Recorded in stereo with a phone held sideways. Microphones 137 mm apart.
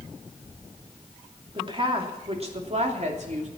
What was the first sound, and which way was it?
A woman speaking, 40° right (ahead or behind).